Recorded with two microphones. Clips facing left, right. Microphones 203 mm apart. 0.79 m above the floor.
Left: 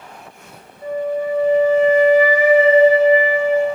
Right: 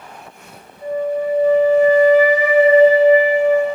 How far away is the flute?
About 4 m.